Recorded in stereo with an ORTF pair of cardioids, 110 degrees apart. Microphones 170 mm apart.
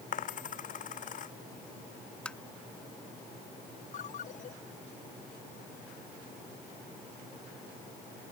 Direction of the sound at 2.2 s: 5° left.